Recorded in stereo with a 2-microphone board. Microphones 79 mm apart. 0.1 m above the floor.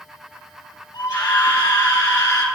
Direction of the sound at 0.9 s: 65° left (ahead or behind).